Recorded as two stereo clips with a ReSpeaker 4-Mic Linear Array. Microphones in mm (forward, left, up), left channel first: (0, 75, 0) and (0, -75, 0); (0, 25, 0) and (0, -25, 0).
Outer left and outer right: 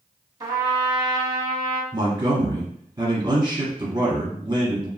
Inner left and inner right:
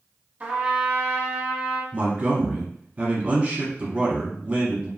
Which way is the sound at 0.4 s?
30° right (ahead or behind).